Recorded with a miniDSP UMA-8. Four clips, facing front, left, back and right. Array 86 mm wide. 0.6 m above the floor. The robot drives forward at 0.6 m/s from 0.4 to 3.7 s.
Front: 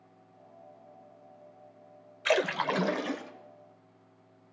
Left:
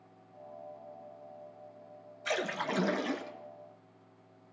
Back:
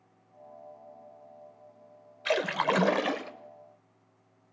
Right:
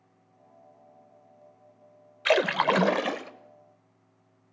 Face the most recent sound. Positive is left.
turn(degrees=-150)